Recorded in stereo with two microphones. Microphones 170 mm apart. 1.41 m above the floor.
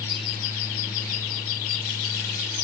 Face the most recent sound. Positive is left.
No sound to turn to.